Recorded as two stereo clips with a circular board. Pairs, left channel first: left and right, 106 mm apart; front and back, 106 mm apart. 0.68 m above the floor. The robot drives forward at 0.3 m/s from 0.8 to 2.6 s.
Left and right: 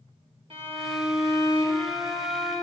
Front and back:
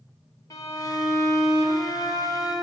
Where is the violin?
55° right, 3.5 m; by 2.5 s 65° right, 3 m.